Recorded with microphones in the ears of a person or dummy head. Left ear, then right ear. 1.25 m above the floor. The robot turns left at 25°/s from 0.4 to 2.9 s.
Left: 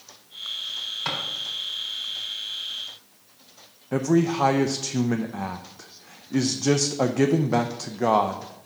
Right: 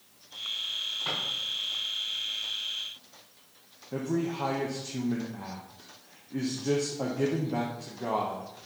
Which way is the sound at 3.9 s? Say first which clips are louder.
Left 9 dB; 75° left (ahead or behind).